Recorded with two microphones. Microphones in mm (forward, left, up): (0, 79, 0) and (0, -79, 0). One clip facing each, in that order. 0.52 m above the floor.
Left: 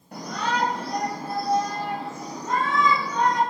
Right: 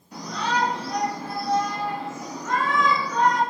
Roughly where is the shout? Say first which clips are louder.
Right 1 dB; left.